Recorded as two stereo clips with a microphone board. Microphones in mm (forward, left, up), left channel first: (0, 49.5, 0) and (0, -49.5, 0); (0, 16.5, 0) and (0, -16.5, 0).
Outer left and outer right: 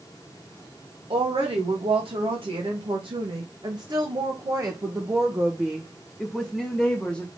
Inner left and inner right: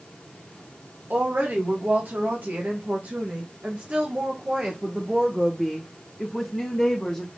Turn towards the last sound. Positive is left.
turn(degrees=10)  # may be behind; listen again after turning